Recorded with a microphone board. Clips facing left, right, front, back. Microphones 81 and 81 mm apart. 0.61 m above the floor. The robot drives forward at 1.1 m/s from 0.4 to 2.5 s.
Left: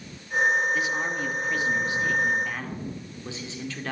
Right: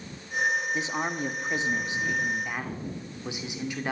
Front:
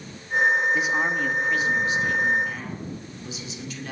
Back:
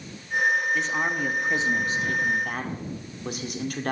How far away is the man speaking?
About 1.2 m.